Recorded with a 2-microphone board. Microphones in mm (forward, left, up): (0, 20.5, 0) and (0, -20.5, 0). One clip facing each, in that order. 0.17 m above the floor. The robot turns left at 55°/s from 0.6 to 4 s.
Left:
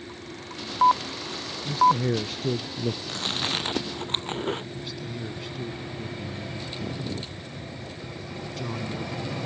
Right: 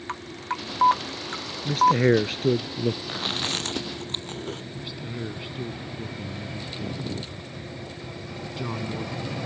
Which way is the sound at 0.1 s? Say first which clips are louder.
Right 7 dB; 85° right.